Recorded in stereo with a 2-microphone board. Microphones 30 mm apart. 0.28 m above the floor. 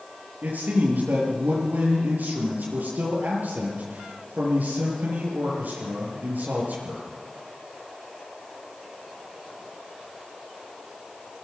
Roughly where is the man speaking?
Right.